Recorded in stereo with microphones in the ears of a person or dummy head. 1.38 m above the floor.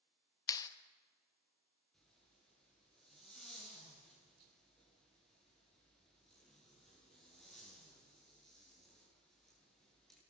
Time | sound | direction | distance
0.5 | a clap | 20° left (ahead or behind) | 1.3 m
1.9 | a zipper | 5° left (ahead or behind) | 9 m